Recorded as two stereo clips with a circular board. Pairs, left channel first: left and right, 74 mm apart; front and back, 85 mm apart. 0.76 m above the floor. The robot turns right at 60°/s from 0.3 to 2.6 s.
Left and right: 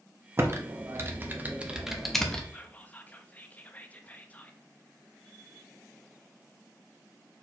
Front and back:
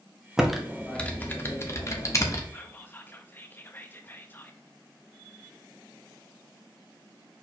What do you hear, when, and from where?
0.4 s typing on a keyboard: 100° right, 0.7 m; by 2.4 s 20° left, 0.7 m
2.5 s whispering: 35° left, 0.6 m; by 4.6 s 40° left, 0.6 m